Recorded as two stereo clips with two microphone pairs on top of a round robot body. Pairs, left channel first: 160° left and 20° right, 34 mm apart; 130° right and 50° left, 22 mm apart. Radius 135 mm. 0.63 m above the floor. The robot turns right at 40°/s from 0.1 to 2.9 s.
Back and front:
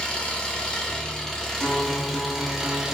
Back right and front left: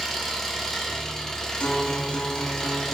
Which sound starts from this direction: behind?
An engine running, at 0.0 s.